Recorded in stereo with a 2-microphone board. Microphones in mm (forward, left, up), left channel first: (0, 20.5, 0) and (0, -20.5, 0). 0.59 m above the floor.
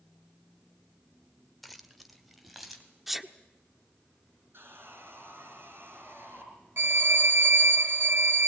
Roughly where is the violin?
Right.